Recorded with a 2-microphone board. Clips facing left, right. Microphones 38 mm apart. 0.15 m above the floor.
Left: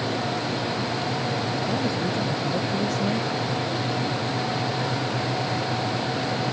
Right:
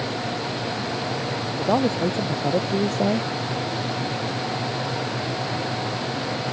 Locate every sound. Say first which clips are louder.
1.6 s a man speaking: right 4 dB; 55° right (ahead or behind); by 3.3 s 45° right (ahead or behind)